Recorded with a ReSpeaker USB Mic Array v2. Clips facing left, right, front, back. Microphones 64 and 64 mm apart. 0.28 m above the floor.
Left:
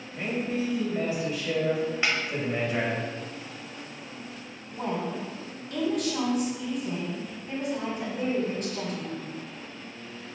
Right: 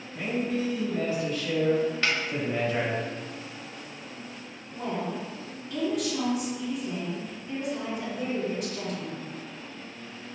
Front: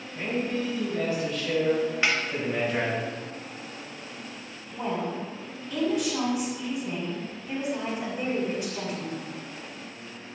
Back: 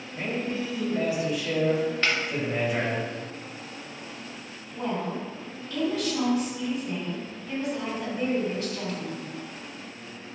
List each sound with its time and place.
0.1 s a man speaking: 140° left, 1.5 m
2.0 s a snare drum: 50° left, 0.9 m
4.7 s a woman speaking: 65° left, 1.7 m